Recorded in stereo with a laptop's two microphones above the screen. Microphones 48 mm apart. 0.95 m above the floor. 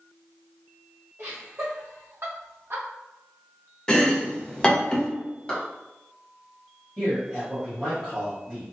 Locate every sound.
1.2 s laughter: 55° right (ahead or behind), 1.4 m; by 2.9 s 50° right (ahead or behind), 0.8 m
3.9 s chopping: 15° left (ahead or behind), 0.5 m
5.5 s a clap: 20° left (ahead or behind), 1.5 m
7.0 s a man speaking: 5° right (ahead or behind), 1.4 m